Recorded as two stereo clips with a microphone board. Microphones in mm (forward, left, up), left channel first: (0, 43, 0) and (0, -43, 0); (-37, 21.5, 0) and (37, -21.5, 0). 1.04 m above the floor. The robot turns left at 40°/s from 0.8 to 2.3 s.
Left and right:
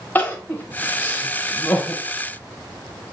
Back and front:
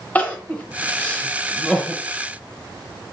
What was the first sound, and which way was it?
Crying, 115° left.